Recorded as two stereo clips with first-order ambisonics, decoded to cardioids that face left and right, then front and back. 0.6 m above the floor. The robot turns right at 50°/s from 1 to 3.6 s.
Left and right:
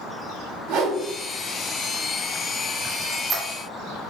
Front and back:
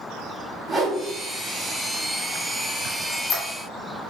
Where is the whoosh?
100° right, 1.6 m.